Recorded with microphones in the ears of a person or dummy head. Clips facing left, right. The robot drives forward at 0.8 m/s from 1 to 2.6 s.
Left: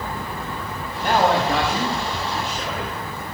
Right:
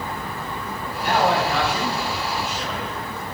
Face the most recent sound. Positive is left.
turn(degrees=45)  # may be behind; listen again after turning